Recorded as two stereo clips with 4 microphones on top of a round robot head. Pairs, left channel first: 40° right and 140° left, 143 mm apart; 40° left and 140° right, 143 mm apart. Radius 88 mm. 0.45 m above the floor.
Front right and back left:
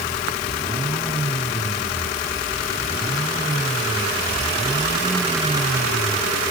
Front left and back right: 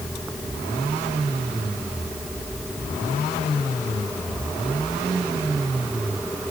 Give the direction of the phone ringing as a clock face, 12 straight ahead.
I don't hear a phone ringing.